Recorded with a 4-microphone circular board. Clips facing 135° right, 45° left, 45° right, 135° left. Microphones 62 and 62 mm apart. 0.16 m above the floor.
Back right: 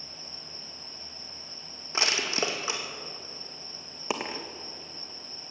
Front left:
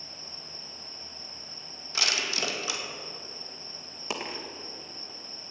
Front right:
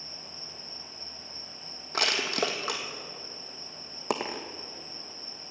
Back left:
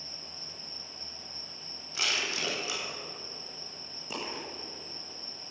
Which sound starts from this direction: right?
Crushing, at 1.9 s.